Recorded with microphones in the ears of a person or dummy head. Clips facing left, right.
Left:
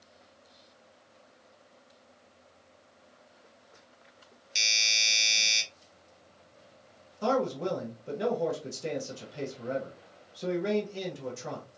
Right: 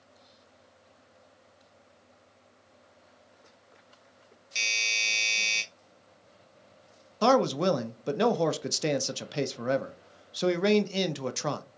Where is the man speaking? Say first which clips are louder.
Right 5 dB; 75° right (ahead or behind), 0.6 m.